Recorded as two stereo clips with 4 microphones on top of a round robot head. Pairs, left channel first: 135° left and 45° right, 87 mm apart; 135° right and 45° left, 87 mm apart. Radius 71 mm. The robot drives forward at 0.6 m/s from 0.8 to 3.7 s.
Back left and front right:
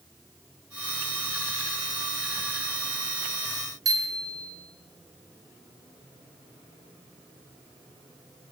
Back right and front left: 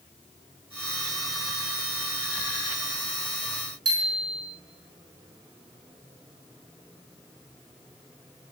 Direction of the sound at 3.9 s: 5° left.